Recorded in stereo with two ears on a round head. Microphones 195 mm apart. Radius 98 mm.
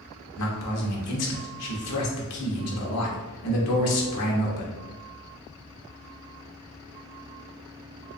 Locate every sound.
0.4 s a man speaking: 85° left, 0.8 m